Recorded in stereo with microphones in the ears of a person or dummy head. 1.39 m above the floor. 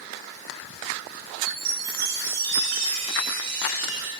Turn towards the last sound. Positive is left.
turn(degrees=-75)  # may be behind; listen again after turning